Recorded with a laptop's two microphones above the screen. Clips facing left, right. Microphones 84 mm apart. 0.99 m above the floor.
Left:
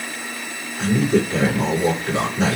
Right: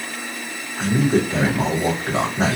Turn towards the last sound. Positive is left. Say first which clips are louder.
# even
turn(degrees=-40)  # may be behind; listen again after turning